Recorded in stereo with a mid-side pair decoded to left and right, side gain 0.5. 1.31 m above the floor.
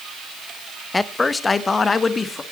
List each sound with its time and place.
0.9 s a man speaking: 15° left, 1.0 m; by 2.4 s 35° left, 2.0 m